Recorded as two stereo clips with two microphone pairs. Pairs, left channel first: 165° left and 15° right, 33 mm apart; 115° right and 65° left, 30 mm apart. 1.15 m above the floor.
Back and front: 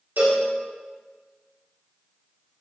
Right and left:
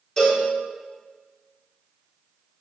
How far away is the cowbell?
About 4 m.